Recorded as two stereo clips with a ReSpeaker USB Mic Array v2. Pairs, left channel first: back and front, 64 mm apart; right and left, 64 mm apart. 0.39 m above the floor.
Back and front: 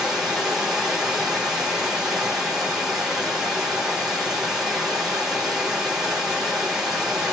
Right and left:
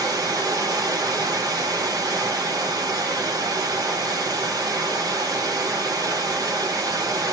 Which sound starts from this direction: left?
Running water, at 0.0 s.